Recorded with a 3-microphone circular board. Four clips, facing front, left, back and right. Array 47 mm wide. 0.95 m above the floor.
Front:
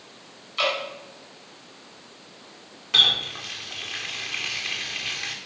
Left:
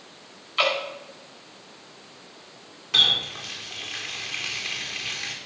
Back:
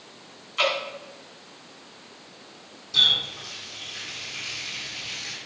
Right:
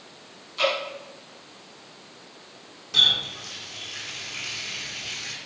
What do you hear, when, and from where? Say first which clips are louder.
0.6 s dripping: left 1 dB, back 1 dB; 95° left, 5.5 m
2.9 s a running tap: even, front 2 dB; 30° left, 2.0 m